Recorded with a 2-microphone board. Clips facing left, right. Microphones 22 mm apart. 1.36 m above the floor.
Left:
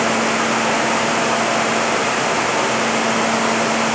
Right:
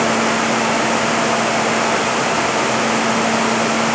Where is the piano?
No piano in this recording.